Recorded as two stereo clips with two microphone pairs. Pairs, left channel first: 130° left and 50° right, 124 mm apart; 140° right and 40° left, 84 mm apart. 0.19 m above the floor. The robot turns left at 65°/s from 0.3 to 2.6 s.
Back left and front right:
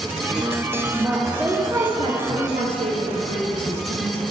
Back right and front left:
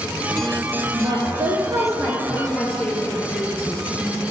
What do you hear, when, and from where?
0.9 s a woman speaking: 55° left, 2.5 m; by 2.2 s 25° right, 2.5 m
2.3 s a woman speaking: 45° right, 4 m; by 4.2 s 70° right, 4 m